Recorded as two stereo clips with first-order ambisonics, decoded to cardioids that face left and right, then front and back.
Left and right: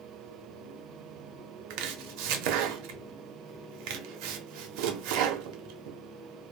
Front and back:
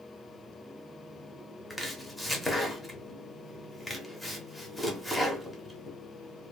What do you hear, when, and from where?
1.7 s chopping: 85° right, 0.6 m